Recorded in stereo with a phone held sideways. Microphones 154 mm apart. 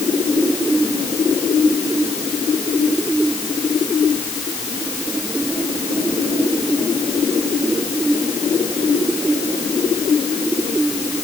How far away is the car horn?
I don't hear a car horn.